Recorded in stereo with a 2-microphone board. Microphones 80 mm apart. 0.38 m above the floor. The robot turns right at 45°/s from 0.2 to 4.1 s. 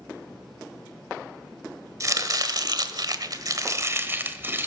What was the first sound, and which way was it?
Chopping, 130° right.